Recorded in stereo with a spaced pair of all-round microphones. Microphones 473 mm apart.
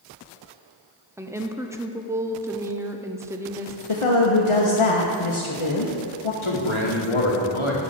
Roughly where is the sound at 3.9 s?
Left.